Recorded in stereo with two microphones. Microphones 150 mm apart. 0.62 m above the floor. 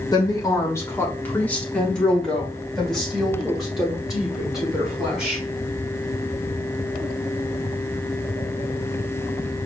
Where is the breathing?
No breathing in this recording.